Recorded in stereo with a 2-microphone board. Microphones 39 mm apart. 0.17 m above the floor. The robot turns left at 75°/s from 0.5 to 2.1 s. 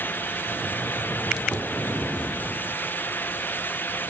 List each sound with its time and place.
1.5 s knocking: 15° left (ahead or behind), 1.0 m; by 1.7 s 20° left (ahead or behind), 1.0 m